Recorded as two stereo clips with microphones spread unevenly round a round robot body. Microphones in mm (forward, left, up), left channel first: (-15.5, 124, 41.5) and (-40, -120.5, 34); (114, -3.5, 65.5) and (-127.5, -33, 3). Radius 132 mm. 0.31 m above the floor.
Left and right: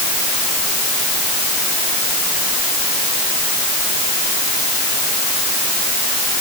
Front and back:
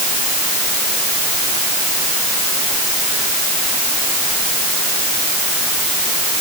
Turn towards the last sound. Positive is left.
No sound to turn to.